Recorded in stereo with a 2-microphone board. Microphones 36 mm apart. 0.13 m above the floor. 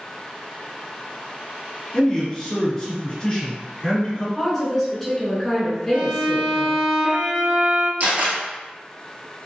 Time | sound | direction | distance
1.9 | a man speaking | 20° left (ahead or behind) | 1.3 m
4.4 | a woman speaking | 10° left (ahead or behind) | 1.1 m
5.9 | a violin | 55° right (ahead or behind) | 0.9 m
8.0 | a camera shutter | 55° right (ahead or behind) | 1.2 m